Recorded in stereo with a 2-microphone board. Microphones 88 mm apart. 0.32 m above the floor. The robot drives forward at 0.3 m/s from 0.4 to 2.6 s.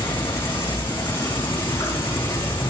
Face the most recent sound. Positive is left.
turn(degrees=60)  # may be behind; listen again after turning